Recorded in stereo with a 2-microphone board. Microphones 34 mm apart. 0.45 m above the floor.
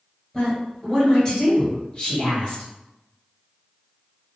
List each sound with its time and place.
0.3 s a woman speaking: 20° left (ahead or behind), 2.0 m; by 2.6 s 30° left (ahead or behind), 1.4 m